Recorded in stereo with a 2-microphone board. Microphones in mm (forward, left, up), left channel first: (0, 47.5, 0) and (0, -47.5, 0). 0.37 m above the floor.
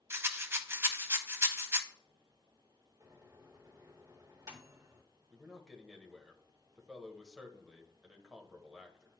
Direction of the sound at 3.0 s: 35° right (ahead or behind).